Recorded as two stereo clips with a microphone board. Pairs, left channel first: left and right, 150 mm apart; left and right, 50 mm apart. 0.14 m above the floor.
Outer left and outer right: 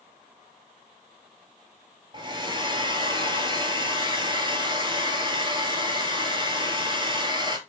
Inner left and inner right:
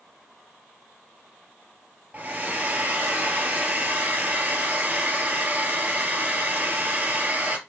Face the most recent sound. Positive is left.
turn(degrees=-35)  # may be behind; listen again after turning